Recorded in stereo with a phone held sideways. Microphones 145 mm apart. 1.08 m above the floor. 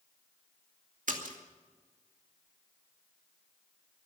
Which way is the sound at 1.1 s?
70° right (ahead or behind).